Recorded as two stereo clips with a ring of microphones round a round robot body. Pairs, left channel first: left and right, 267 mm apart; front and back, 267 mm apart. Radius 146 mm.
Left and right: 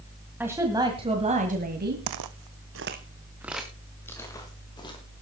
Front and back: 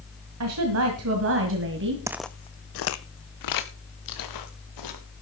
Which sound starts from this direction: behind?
A woman speaking, at 0.4 s.